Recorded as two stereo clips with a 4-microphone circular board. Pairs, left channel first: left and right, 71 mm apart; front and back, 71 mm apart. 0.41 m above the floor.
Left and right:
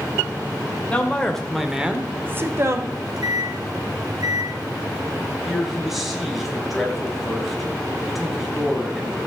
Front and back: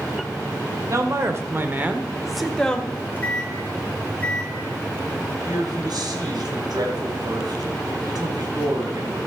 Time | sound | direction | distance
0.9 | a man speaking | 160° left | 1.8 m
2.9 | a microwave | 70° right | 2.5 m
5.5 | a man speaking | 175° right | 3 m